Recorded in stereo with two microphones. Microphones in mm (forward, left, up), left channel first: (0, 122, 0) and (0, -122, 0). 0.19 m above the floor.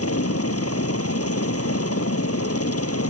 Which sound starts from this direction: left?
A helicopter, at 0.0 s.